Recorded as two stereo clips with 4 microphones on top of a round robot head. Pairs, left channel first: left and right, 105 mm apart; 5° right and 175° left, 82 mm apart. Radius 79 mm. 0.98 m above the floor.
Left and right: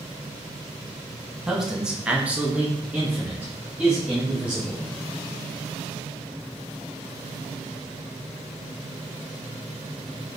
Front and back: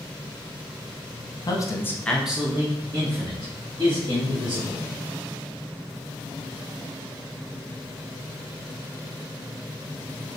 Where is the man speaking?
5° right, 0.8 m; by 4.9 s 170° right, 2 m.